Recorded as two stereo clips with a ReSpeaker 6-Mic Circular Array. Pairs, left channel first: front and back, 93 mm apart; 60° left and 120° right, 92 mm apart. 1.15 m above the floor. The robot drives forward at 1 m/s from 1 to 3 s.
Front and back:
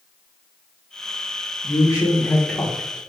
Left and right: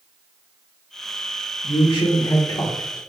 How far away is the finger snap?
No finger snap in this recording.